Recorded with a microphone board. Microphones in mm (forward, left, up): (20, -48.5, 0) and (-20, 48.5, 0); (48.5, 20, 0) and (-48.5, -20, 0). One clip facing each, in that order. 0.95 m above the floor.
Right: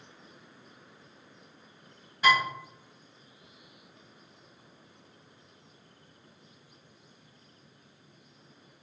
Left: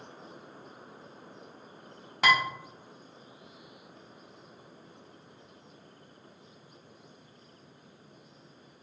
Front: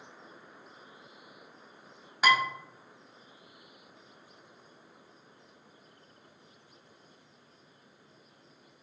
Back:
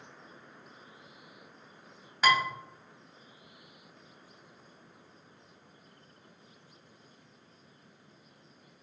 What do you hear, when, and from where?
2.2 s dishes clattering: 105° left, 0.8 m